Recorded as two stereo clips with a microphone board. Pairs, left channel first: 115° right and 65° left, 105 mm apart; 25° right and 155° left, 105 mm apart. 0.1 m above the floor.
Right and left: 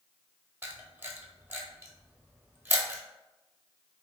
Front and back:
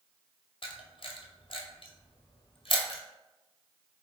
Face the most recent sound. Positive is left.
turn(degrees=0)